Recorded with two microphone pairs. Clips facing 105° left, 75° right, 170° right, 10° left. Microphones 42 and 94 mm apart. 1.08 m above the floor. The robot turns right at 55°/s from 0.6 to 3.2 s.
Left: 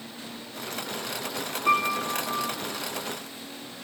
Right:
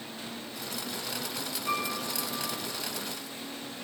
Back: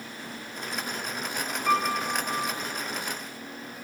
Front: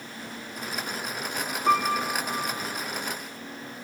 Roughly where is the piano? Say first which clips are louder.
Left 9 dB, front 2 dB; left.